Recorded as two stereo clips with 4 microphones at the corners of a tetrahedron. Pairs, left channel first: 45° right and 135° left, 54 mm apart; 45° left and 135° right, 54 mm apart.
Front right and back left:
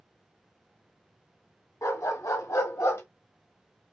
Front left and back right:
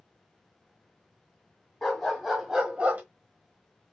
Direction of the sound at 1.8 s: 40° right.